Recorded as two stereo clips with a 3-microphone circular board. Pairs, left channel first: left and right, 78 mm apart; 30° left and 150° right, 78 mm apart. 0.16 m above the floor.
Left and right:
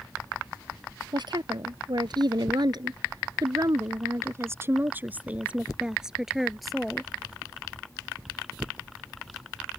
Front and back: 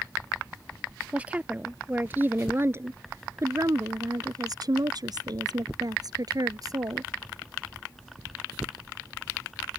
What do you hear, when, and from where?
1.1 s a woman speaking: 75° right; by 7.1 s 175° left